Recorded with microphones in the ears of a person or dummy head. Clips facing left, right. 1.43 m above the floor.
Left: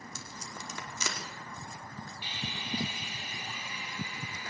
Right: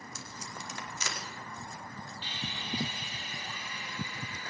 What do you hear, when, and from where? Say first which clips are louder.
0.1 s tape being pulled: even; 80° left, 4.5 m
2.2 s sawing: left 1 dB; 15° left (ahead or behind), 4.5 m